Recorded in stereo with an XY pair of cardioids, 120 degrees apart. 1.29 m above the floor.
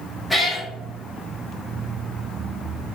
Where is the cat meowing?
5° left, 1.6 m.